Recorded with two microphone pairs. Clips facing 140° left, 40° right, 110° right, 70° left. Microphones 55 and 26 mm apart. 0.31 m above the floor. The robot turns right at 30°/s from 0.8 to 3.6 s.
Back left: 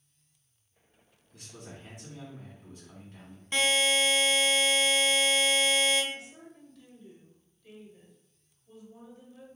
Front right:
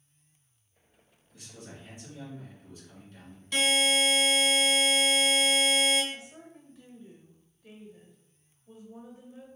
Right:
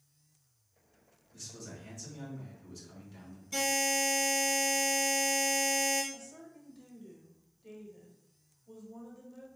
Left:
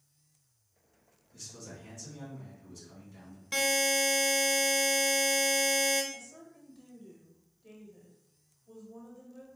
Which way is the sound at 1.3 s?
125° left.